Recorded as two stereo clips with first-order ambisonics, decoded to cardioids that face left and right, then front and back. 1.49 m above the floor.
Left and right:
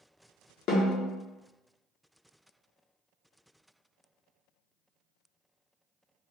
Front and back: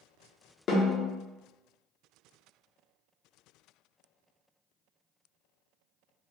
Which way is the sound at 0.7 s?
50° left.